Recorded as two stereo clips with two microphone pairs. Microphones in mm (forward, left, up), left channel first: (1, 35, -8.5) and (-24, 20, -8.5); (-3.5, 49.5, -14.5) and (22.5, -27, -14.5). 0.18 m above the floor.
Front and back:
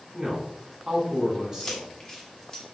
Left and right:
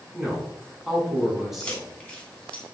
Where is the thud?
No thud in this recording.